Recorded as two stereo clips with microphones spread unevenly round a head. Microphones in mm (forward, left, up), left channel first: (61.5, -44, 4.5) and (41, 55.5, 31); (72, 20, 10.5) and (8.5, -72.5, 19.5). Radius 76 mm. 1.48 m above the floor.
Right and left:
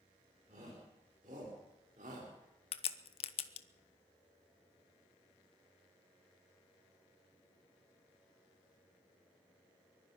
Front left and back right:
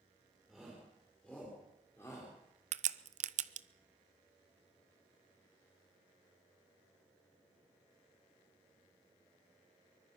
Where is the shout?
145° left, 5 m; by 2.3 s 125° left, 4 m.